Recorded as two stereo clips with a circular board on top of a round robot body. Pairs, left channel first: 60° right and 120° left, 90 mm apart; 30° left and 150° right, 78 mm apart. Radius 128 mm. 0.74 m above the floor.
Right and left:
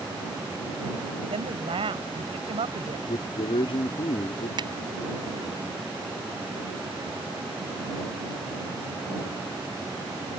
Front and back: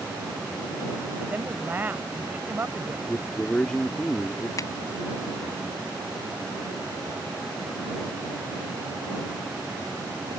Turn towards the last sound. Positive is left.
turn(degrees=80)